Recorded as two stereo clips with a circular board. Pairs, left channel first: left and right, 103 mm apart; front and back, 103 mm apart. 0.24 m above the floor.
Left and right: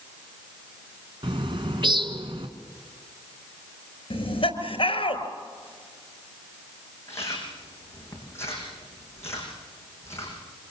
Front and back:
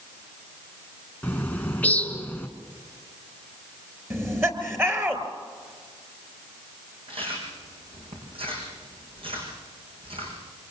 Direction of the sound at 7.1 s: 155° left.